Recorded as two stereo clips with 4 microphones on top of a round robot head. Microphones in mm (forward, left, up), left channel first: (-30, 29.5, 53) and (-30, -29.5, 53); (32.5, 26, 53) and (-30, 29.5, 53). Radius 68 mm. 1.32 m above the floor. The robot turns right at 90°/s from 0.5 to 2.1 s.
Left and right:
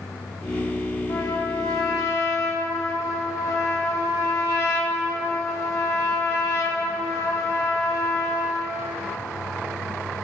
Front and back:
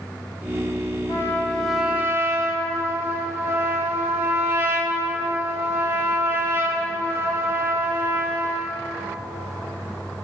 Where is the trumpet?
30° left, 2 m; by 8.8 s 125° left, 2 m.